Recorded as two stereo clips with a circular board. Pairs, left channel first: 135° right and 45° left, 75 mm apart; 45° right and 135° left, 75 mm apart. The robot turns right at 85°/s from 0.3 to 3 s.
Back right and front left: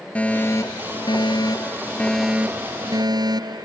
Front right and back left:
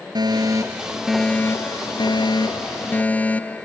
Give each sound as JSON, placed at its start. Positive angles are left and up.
{"t": 0.1, "sound": "a fire alarm", "azimuth_deg": 155}